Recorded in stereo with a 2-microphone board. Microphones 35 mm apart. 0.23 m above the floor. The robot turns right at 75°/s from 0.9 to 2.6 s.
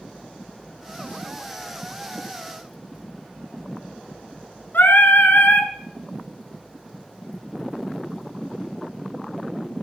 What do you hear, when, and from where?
4.7 s singing: 75° left (ahead or behind), 0.8 m